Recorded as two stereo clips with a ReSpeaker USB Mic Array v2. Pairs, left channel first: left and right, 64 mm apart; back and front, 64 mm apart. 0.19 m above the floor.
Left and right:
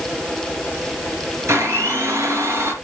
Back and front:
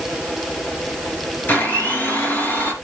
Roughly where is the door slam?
I don't hear a door slam.